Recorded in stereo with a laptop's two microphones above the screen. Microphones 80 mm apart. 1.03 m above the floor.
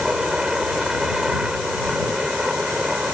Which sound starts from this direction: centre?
A helicopter, at 0.0 s.